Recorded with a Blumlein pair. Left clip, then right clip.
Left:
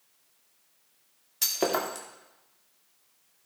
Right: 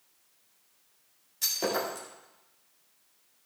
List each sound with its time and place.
1.4 s breaking glass: 65° left, 2.5 m